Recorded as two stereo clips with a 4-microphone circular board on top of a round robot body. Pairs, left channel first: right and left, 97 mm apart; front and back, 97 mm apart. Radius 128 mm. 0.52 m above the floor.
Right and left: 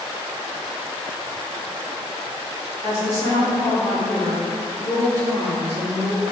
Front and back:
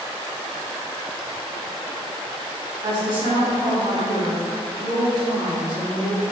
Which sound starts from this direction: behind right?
A woman speaking, at 2.8 s.